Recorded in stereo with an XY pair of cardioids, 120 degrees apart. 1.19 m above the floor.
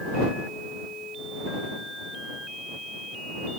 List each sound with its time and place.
Only background noise.